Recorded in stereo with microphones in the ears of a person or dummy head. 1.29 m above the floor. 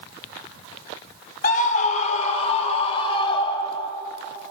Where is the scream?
50° left (ahead or behind), 3 m; by 3.9 s 25° left (ahead or behind), 6 m.